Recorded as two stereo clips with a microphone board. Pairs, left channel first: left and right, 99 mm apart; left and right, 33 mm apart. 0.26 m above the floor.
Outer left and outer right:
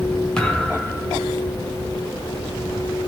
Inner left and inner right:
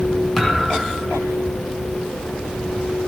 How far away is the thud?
About 6 m.